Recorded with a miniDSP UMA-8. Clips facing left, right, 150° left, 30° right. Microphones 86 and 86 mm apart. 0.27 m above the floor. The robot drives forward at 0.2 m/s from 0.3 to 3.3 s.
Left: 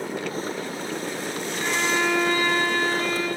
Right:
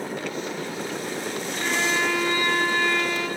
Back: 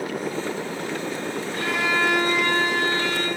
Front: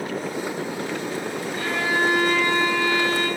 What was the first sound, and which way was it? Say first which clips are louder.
A violin: left 1 dB, even; 155° left.